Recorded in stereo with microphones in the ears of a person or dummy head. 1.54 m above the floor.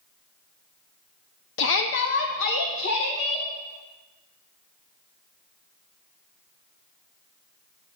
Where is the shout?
60° left (ahead or behind), 0.5 m; by 3.5 s 65° left (ahead or behind), 1.5 m.